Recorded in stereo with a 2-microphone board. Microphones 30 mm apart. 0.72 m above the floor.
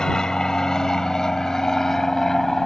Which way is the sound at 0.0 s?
20° left (ahead or behind).